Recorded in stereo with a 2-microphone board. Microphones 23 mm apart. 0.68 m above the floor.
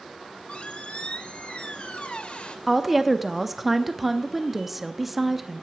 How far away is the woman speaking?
About 0.6 m.